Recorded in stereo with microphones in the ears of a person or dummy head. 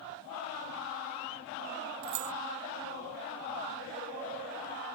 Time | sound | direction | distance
2.0 | keys jangling | 60° right (ahead or behind) | ?